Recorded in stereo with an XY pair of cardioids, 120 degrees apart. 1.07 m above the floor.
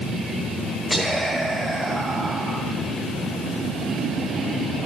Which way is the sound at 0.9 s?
15° right.